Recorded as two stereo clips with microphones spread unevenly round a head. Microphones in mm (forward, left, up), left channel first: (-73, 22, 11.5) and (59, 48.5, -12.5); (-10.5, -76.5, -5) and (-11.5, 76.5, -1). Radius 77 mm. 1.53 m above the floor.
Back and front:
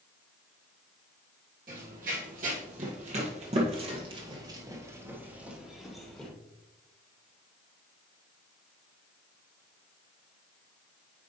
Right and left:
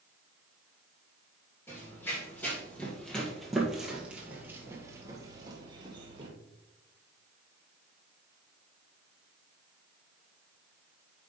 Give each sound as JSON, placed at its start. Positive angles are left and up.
{"t": 1.7, "sound": "running footsteps", "azimuth_deg": -15, "distance_m": 2.5}